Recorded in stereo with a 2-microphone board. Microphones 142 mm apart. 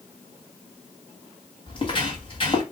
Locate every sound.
1.7 s footsteps: 40° left (ahead or behind), 1.6 m